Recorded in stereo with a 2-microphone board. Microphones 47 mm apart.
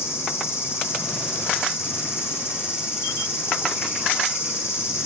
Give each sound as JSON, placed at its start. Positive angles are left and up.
{"t": 0.0, "sound": "an insect", "side_deg": 70, "distance_m": 4.5}